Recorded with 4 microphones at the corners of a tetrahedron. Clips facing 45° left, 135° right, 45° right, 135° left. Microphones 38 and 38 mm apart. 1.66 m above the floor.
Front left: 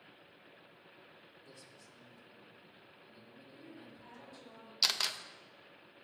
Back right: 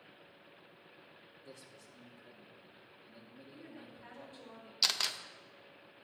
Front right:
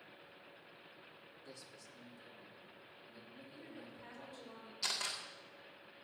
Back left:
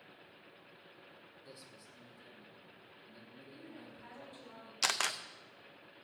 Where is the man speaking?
150° right, 2 m; by 4.5 s 175° right, 3 m.